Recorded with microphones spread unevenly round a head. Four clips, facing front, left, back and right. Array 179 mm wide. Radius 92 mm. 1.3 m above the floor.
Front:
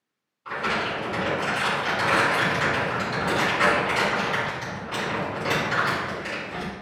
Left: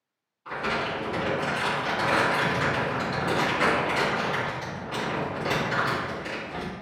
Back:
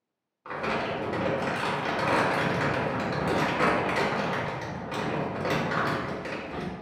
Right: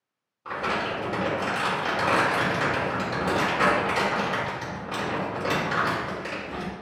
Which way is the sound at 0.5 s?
125° right.